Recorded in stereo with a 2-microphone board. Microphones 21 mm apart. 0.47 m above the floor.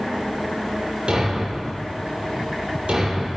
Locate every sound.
1.1 s a thud: 85° right, 6 m